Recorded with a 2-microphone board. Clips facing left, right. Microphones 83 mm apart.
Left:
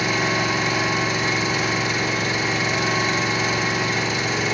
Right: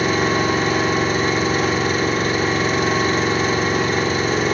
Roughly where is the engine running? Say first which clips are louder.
Right 4 dB; right.